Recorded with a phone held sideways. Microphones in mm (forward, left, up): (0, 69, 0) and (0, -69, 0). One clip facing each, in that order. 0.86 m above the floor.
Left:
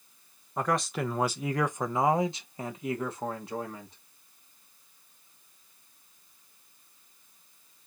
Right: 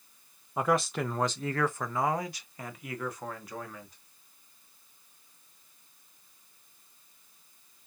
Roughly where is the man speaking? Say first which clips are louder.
Right 1 dB; centre.